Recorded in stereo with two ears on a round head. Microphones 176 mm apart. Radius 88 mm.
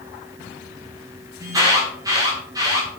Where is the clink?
No clink in this recording.